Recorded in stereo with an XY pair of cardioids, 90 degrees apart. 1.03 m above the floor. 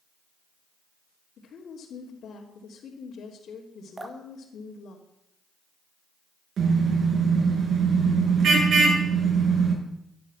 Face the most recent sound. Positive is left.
turn(degrees=-65)